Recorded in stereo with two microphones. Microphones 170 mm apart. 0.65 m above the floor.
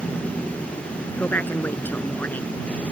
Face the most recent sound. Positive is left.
turn(degrees=10)  # may be behind; listen again after turning